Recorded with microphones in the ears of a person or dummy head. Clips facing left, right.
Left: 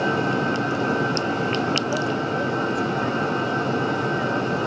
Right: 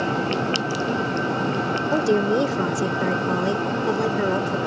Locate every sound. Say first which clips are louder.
1.9 s a woman speaking: right 5 dB; 65° right (ahead or behind)